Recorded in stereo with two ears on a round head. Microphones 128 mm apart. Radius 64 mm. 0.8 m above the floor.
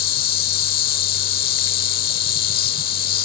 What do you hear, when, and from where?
0.0 s an insect: 65° left (ahead or behind)